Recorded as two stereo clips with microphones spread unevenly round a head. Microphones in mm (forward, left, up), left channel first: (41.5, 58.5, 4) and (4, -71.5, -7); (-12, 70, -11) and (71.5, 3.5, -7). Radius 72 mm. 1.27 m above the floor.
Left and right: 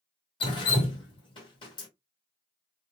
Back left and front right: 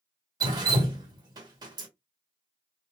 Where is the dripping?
15° left, 1.3 m.